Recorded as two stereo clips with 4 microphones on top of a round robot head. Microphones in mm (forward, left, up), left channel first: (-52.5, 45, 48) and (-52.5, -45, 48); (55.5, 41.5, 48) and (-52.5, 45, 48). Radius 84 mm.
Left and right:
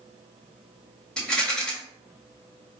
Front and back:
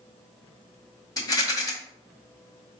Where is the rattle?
15° left, 1.3 m.